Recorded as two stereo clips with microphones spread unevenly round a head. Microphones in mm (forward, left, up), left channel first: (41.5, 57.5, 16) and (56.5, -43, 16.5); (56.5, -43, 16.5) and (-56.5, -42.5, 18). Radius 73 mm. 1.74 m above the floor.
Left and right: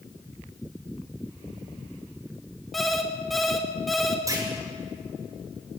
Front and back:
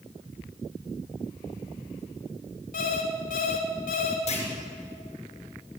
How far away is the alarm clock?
About 3 m.